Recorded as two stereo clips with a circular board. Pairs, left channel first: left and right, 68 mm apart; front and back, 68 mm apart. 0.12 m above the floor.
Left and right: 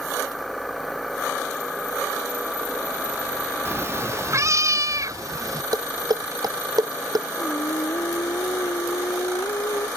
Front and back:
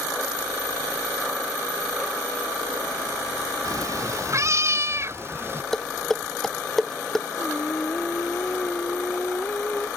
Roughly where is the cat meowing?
Behind right.